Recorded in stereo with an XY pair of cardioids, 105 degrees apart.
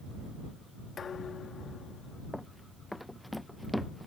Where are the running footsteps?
5° left.